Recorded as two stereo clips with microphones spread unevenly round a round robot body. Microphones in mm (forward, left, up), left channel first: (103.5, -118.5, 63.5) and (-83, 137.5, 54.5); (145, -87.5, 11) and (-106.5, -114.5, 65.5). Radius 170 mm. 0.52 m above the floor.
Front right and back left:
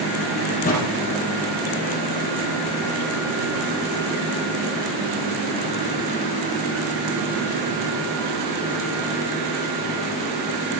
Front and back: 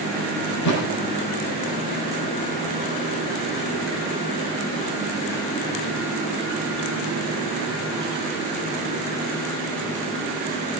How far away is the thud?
About 6 m.